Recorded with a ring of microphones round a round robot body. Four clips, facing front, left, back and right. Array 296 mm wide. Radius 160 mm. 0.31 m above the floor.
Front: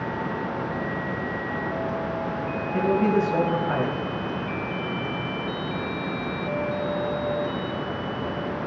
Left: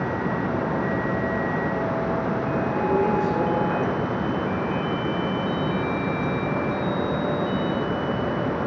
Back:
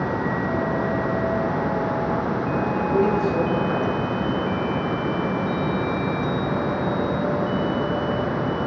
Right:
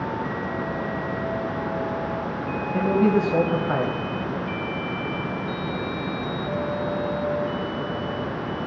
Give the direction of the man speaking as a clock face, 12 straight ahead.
2 o'clock.